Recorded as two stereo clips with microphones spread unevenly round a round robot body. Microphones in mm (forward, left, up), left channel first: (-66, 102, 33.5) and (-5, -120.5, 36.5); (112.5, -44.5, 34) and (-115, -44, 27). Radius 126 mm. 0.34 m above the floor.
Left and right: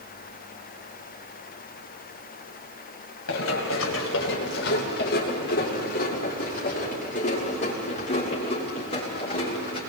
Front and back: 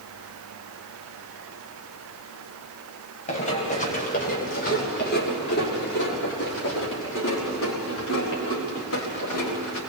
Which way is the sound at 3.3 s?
65° left.